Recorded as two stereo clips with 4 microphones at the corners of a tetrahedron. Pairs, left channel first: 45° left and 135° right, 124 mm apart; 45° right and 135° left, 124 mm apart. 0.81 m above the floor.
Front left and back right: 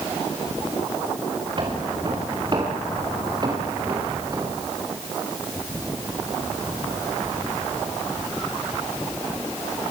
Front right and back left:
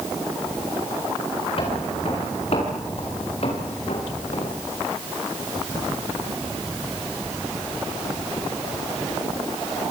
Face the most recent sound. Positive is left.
turn(degrees=-75)